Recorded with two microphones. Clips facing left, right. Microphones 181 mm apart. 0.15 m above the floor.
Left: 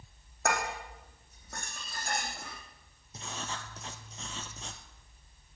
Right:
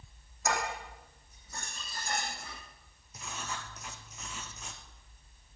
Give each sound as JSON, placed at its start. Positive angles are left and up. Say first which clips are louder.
{"t": 0.5, "sound": "dishes clattering", "louder": "left 1 dB", "side_deg": 60, "distance_m": 5.5}
{"t": 3.1, "sound": "writing", "louder": "left 1 dB", "side_deg": 30, "distance_m": 1.4}